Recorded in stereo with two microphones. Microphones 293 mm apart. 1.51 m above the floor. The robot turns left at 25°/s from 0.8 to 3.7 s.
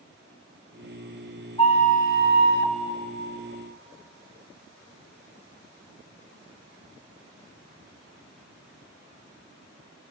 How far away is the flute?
About 0.8 m.